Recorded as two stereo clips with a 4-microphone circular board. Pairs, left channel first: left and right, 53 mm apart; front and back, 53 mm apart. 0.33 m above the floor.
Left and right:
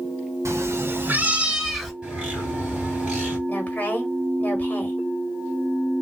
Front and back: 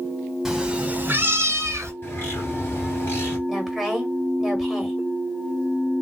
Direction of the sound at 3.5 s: 100° left.